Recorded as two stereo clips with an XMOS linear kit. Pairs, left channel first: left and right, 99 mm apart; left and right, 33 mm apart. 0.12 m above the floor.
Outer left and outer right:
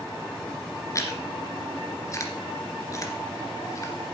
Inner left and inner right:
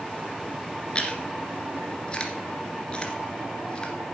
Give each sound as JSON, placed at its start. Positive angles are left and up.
{"t": 0.9, "sound": "chewing", "side_deg": 30, "distance_m": 2.0}